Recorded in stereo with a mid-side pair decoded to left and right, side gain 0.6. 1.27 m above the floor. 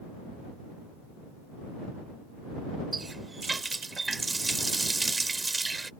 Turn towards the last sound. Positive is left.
turn(degrees=-20)